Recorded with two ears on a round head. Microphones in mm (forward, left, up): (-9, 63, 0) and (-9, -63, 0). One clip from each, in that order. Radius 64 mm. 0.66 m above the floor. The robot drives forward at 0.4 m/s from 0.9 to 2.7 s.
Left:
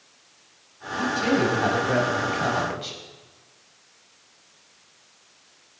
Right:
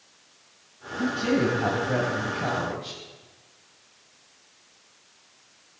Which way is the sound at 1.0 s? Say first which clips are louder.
Left 2 dB; 50° left (ahead or behind).